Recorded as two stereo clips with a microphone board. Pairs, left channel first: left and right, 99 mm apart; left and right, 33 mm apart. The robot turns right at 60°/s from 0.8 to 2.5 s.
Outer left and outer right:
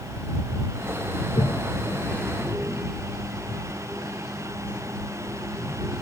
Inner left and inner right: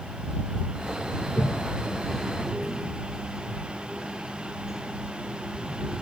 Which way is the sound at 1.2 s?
70° left (ahead or behind).